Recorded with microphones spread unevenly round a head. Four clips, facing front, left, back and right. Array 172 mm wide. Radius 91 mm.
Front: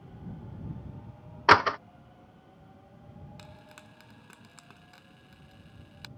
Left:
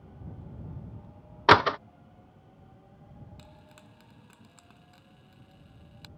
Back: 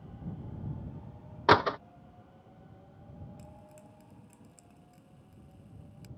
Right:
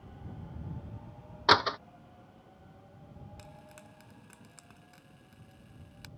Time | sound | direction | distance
1.5 | a door slam | 95° left | ?
3.4 | frying | straight ahead | ?